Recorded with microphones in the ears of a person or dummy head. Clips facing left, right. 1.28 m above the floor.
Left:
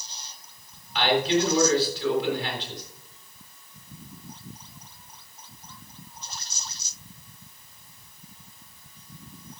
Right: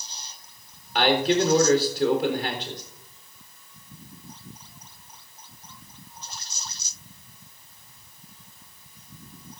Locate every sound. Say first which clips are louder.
0.9 s a man speaking: right 2 dB; 50° right (ahead or behind), 4 m